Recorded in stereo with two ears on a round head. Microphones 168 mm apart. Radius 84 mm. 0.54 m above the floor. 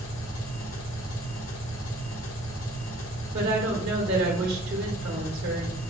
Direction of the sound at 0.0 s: 80° left.